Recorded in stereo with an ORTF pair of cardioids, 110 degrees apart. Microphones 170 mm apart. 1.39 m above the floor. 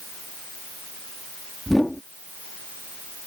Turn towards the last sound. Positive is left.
turn(degrees=5)